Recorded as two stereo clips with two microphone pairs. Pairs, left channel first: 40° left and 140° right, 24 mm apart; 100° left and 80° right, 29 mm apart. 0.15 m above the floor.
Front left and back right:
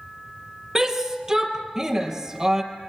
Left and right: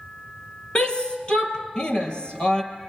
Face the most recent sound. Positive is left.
turn(degrees=155)